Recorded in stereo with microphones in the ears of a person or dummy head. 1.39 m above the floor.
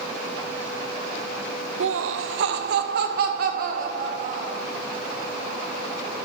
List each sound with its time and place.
1.8 s laughter: 70° right (ahead or behind), 0.6 m; by 4.6 s 50° right (ahead or behind), 2 m